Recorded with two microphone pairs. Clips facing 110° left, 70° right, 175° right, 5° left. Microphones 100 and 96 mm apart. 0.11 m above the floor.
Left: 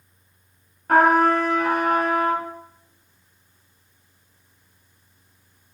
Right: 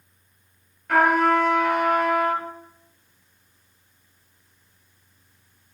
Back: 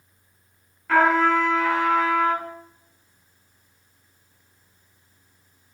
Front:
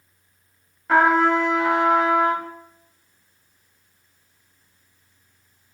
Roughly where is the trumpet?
Left.